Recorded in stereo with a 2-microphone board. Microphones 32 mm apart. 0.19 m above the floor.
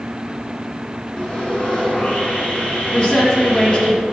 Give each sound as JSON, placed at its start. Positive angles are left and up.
{"t": 1.2, "sound": "sawing", "side_deg": 45, "distance_m": 2.5}
{"t": 2.9, "sound": "a woman speaking", "side_deg": 30, "distance_m": 1.7}